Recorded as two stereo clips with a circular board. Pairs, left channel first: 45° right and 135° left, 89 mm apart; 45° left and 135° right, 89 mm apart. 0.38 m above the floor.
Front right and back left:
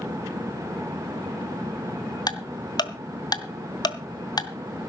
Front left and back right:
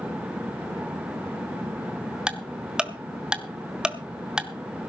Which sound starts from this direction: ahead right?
Ticking, at 2.3 s.